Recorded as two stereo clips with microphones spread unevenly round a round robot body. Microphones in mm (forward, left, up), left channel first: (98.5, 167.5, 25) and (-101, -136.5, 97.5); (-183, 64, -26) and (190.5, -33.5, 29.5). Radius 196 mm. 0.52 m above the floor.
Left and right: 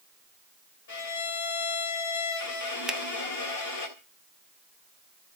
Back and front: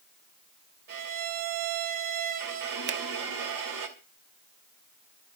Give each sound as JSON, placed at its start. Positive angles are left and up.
{"t": 0.9, "sound": "a violin", "azimuth_deg": 30, "distance_m": 3.5}
{"t": 2.9, "sound": "a finger snap", "azimuth_deg": -20, "distance_m": 1.1}